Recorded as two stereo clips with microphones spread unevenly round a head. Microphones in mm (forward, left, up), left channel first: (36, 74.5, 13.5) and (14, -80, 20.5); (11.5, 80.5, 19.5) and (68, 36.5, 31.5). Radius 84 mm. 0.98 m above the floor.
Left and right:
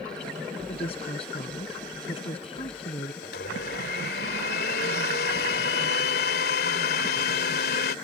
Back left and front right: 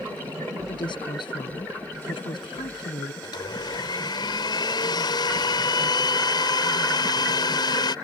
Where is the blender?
120° left.